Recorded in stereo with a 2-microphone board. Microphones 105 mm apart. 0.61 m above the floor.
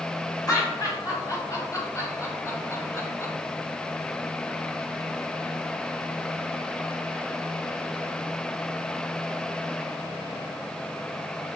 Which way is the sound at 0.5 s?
35° left (ahead or behind).